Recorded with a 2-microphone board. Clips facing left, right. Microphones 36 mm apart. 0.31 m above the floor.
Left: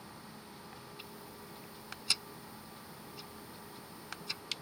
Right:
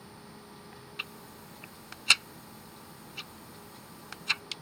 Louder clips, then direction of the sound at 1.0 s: Right 7 dB; 65° right (ahead or behind).